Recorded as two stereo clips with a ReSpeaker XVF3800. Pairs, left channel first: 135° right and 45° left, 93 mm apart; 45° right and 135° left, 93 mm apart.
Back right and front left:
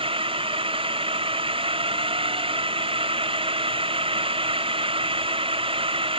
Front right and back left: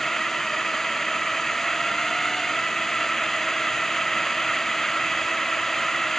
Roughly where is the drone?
Ahead left.